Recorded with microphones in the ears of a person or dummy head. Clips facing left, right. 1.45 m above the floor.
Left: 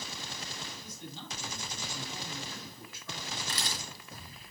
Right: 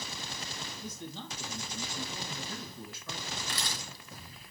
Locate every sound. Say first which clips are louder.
0.8 s a man speaking: right 3 dB; 70° right (ahead or behind), 6 m
3.5 s a camera shutter: even; 35° left (ahead or behind), 2.5 m